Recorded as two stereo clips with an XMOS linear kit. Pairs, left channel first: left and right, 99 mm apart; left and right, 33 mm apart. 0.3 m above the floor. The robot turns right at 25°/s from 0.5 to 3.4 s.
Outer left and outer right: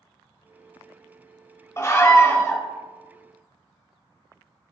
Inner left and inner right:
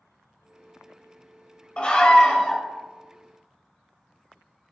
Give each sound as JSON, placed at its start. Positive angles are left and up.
{"t": 1.8, "sound": "a scream", "side_deg": 35, "distance_m": 1.2}